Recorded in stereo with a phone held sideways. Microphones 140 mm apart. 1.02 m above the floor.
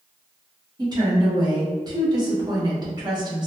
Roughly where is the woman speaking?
Right.